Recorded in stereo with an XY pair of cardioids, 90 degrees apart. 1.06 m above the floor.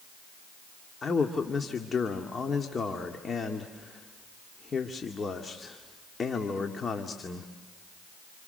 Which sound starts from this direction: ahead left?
A man speaking, at 1.0 s.